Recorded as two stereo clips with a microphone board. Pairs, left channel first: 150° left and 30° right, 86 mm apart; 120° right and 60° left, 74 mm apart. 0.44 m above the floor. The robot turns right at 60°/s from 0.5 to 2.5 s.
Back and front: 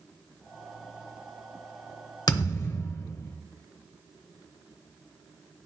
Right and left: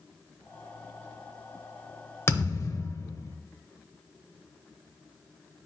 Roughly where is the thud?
Behind.